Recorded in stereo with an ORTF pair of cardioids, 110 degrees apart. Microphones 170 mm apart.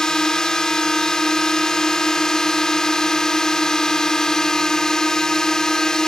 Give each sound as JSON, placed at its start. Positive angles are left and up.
{"t": 0.0, "sound": "a drone", "azimuth_deg": 5}